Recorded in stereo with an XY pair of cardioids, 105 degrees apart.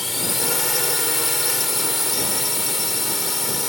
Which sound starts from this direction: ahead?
A drone, at 0.0 s.